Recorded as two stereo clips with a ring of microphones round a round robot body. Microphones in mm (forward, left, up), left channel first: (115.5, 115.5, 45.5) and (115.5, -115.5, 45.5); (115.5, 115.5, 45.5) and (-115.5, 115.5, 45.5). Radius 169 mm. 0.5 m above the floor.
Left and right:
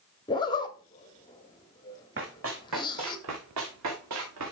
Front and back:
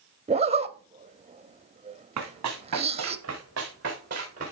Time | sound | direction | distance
0.3 | a zipper | 145° left | 0.7 m
2.2 | running footsteps | 150° right | 1.8 m